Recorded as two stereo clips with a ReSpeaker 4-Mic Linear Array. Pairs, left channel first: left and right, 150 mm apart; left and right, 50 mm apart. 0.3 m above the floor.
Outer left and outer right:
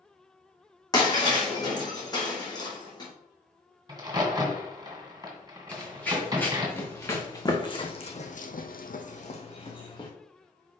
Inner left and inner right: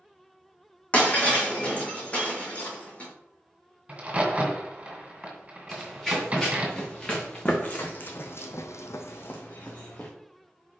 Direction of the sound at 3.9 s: 25° right (ahead or behind).